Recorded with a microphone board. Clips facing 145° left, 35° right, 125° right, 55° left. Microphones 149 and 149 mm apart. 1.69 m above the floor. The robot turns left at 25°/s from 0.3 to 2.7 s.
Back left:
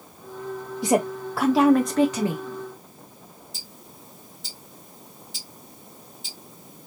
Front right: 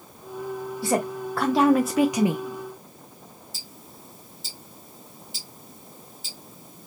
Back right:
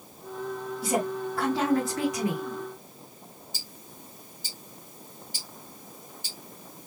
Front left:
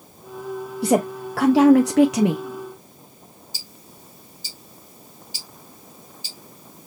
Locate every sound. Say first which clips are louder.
0.8 s a woman speaking: back left 3 dB, front left 8 dB; 75° left, 0.6 m; by 2.5 s 35° left, 0.6 m
3.5 s ticking: even, front left 1 dB; 120° right, 1.9 m